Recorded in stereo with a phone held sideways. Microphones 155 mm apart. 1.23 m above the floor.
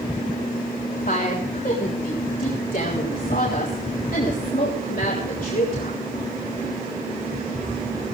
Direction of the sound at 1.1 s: 60° left (ahead or behind).